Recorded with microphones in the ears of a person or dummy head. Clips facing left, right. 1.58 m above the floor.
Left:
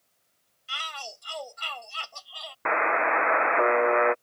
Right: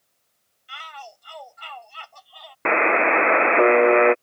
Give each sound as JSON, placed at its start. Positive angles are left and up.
{"t": 0.7, "sound": "a shout", "side_deg": 55}
{"t": 2.6, "sound": "a buzzer", "side_deg": -30}